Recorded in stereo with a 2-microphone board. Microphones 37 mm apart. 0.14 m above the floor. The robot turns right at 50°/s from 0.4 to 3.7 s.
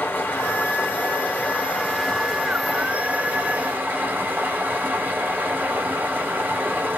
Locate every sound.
0.0 s running water: 85° left, 1.9 m; by 7.0 s 110° right, 1.9 m